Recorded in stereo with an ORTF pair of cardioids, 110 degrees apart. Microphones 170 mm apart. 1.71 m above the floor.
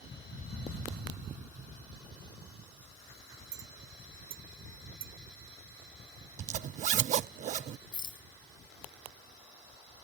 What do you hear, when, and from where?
3.5 s a clink: 65° right
6.4 s a zipper: 45° right
7.9 s a rattle: 30° left